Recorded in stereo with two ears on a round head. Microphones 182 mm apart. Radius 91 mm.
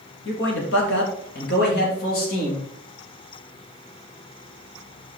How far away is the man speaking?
About 3 m.